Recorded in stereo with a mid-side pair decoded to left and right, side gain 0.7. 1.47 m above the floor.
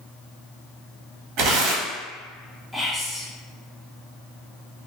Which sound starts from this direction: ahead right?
Tearing paper, at 1.4 s.